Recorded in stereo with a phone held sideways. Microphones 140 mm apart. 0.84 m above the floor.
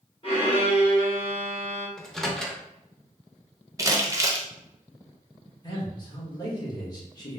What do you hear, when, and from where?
0.2 s a violin: 40° left (ahead or behind), 1.1 m
2.0 s a microwave: 5° left (ahead or behind), 0.6 m
3.8 s crumpling: 20° right (ahead or behind), 0.6 m
5.6 s a man speaking: 30° left (ahead or behind), 1.3 m